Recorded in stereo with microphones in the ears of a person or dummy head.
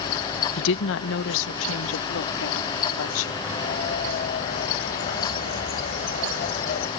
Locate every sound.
0.6 s a woman speaking: 65° left (ahead or behind); by 3.4 s 80° left
3.5 s a bird: 45° left (ahead or behind)